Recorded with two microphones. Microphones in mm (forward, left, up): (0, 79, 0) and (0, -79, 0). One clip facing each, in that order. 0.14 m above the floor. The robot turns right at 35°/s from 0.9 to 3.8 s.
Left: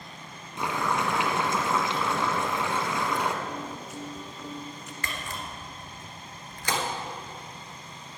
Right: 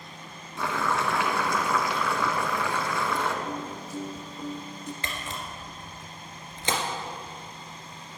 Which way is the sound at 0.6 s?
20° left (ahead or behind).